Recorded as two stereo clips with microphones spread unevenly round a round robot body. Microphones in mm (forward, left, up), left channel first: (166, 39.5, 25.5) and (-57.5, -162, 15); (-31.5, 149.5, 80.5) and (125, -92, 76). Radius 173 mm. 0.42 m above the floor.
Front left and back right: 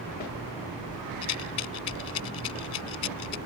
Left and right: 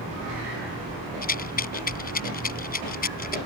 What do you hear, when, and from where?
1.2 s a rattle: 65° left